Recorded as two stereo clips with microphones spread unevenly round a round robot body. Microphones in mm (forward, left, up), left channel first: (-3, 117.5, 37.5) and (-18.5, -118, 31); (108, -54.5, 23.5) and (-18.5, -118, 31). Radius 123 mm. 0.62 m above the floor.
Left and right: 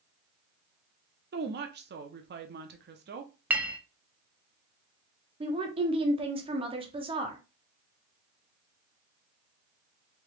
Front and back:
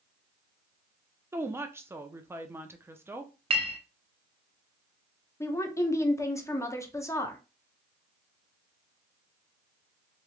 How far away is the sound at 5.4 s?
About 1.0 m.